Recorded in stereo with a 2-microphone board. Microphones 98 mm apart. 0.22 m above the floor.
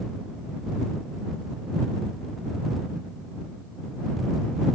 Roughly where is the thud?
I don't hear a thud.